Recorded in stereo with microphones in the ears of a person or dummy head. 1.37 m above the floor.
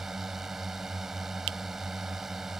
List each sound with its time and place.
0.0 s a drone: 5° right (ahead or behind)
1.5 s a finger snap: 70° right (ahead or behind)